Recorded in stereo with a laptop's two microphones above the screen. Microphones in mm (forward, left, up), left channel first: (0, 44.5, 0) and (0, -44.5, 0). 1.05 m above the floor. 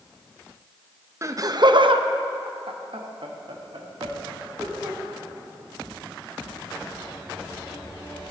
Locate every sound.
1.2 s laughter: 35° right (ahead or behind), 0.8 m; by 5.0 s 60° right (ahead or behind), 2 m